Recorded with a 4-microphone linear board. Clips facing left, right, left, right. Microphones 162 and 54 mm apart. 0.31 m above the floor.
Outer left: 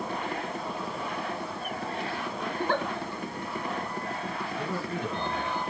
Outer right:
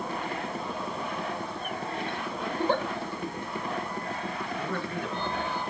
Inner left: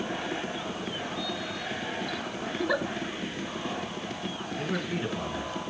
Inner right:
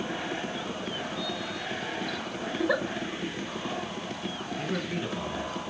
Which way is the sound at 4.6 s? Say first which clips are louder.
Outer left 1 dB, inner left 1 dB; 15° left (ahead or behind).